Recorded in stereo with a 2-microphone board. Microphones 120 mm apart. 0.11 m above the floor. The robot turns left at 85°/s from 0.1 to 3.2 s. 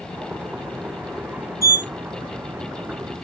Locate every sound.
1.6 s a sliding door: 30° right (ahead or behind), 1.6 m; by 1.9 s 25° right (ahead or behind), 1.6 m